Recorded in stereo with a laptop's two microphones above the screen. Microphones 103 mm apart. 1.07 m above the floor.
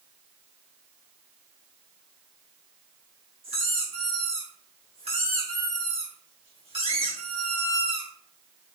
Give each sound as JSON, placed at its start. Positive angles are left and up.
{"t": 3.4, "sound": "a squeak", "side_deg": -75, "distance_m": 2.0}